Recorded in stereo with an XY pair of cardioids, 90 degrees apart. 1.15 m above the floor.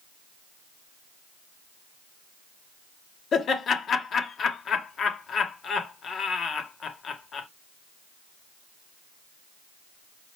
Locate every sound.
3.3 s laughter: 60° left, 0.9 m